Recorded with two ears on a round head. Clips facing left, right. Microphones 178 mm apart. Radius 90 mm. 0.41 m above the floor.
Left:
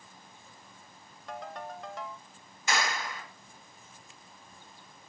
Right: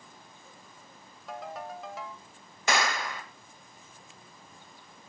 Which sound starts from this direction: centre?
A ringtone, at 1.3 s.